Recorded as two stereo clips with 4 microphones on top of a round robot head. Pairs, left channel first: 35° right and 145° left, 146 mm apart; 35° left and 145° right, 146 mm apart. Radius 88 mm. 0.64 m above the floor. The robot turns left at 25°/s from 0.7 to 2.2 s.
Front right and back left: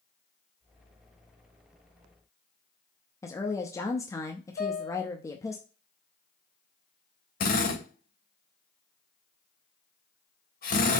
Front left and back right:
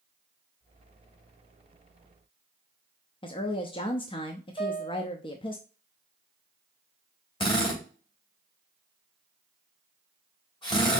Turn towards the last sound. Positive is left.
turn(degrees=-20)